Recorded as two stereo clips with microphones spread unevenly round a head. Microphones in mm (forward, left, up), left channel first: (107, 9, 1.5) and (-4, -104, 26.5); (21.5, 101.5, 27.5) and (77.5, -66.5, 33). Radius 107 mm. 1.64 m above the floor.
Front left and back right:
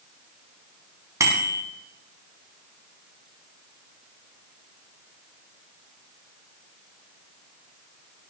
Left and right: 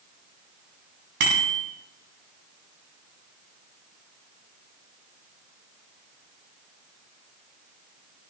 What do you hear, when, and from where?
1.2 s a bicycle bell: 65° right, 10 m